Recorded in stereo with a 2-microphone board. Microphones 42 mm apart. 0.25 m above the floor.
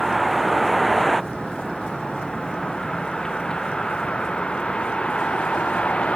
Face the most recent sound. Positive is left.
turn(degrees=30)  # may be behind; listen again after turning